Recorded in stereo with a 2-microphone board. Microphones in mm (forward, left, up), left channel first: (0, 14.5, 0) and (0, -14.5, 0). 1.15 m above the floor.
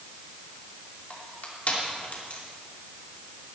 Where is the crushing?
60° left (ahead or behind), 3 m.